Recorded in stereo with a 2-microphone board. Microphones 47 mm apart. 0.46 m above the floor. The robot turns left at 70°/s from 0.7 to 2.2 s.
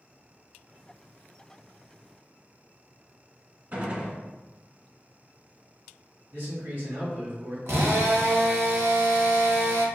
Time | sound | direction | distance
3.7 | a gunshot | 40° right (ahead or behind) | 0.9 m
6.3 | a man speaking | 70° right (ahead or behind) | 1.8 m
7.7 | a drill | 65° right (ahead or behind) | 0.7 m